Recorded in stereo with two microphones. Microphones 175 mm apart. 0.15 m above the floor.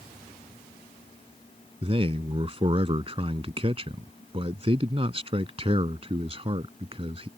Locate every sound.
1.8 s a man speaking: 35° right (ahead or behind)